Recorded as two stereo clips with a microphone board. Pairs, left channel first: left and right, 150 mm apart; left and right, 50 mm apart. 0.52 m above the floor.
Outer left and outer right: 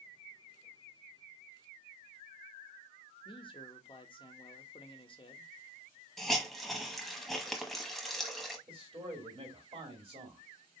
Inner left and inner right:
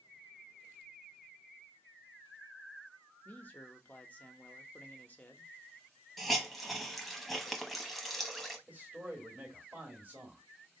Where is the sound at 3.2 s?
35° left (ahead or behind), 0.7 m.